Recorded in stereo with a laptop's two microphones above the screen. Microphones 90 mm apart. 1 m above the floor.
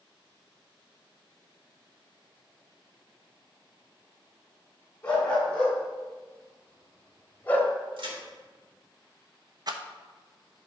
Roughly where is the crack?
Right.